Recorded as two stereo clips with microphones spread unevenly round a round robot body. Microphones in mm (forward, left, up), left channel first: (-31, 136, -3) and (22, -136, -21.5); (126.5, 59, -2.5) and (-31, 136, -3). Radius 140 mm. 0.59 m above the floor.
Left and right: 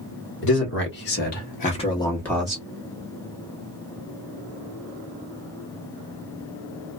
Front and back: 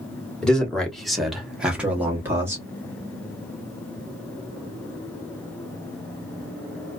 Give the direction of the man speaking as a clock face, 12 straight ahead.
10 o'clock.